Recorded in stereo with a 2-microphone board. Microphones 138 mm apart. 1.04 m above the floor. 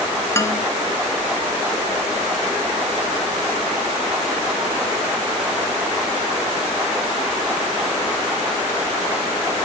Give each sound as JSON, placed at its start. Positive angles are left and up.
{"t": 0.3, "sound": "a man speaking", "side_deg": 20, "distance_m": 0.7}